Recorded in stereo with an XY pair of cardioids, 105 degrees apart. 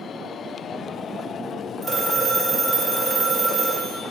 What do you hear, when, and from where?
1.8 s a phone ringing: 20° right, 1.4 m